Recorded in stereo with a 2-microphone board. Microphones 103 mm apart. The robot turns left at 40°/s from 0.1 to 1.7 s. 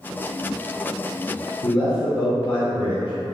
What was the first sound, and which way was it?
A man speaking, 50° left (ahead or behind).